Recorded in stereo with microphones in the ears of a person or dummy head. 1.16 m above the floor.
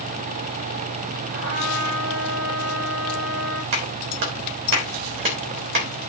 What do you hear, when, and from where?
1.3 s a trumpet: 75° right (ahead or behind), 8 m
3.7 s a clap: 55° right (ahead or behind), 3 m